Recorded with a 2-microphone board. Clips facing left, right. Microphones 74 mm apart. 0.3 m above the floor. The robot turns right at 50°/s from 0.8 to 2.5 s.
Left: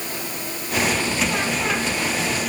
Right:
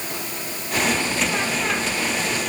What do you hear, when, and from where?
Only background noise.